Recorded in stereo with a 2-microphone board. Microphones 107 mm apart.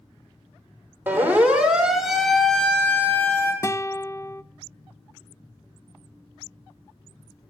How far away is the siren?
About 2.5 m.